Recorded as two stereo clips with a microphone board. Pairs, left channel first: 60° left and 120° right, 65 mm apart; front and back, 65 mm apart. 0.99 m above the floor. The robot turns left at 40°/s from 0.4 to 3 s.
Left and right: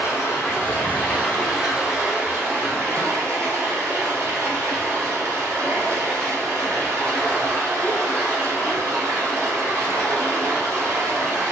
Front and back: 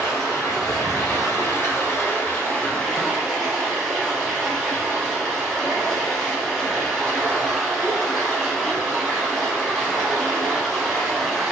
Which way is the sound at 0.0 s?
20° left.